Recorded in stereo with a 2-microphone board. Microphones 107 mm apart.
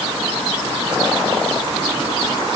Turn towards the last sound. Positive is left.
No sound to turn to.